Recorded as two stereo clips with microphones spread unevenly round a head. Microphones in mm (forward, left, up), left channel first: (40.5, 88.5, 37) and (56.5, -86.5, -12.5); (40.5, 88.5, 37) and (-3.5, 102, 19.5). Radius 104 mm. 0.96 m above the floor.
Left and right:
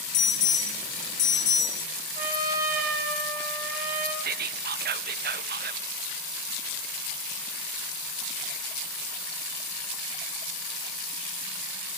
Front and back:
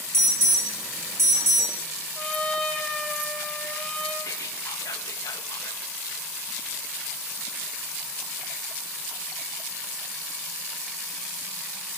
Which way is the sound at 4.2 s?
65° right.